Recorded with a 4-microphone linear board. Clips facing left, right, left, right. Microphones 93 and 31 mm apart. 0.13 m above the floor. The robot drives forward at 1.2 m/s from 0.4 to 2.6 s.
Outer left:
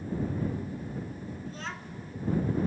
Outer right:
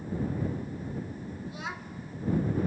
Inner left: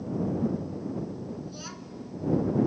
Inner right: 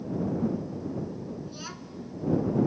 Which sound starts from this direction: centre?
A child speaking, at 1.5 s.